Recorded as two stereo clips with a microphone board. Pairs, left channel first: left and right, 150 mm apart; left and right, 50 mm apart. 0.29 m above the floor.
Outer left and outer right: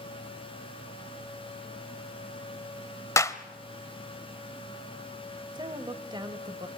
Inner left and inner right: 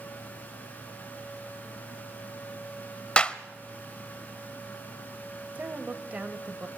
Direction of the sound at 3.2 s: 20° left (ahead or behind).